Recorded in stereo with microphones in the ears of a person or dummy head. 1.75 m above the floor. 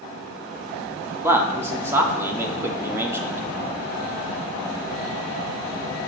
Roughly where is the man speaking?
Centre.